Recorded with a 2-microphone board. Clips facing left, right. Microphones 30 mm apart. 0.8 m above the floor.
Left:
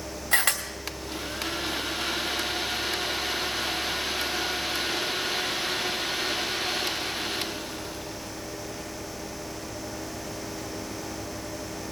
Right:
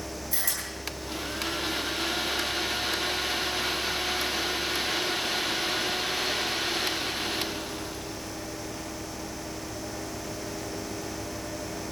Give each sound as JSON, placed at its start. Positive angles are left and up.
{"t": 0.3, "sound": "a camera shutter", "side_deg": 60, "distance_m": 2.5}